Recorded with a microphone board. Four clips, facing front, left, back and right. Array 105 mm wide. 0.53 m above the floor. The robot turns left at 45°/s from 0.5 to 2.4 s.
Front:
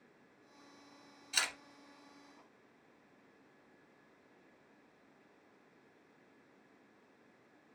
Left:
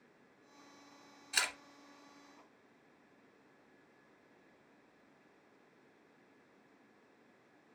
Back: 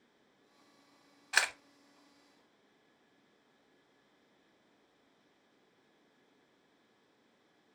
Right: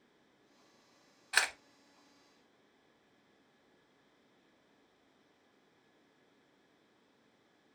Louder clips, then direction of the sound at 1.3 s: Right 5 dB, back 7 dB; 145° right.